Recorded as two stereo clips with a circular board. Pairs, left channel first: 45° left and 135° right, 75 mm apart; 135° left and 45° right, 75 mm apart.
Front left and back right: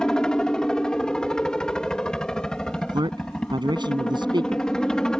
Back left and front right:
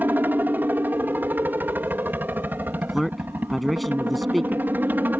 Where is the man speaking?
135° right.